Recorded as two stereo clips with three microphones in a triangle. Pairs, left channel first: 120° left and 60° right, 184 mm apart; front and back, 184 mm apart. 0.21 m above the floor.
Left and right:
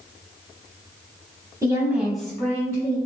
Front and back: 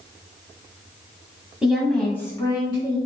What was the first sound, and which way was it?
A woman speaking, 100° right.